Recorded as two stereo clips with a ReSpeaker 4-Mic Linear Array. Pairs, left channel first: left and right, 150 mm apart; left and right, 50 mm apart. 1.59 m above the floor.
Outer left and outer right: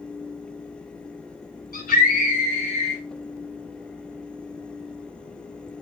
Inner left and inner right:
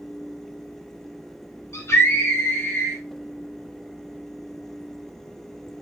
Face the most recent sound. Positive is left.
turn(degrees=40)  # may be behind; listen again after turning